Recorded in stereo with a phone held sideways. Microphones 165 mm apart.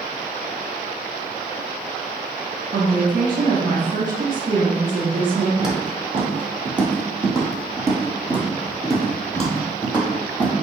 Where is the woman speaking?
70° right (ahead or behind), 0.9 m.